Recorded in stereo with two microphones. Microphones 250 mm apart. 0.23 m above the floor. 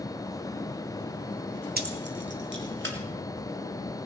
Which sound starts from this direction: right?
Keys jangling, at 1.8 s.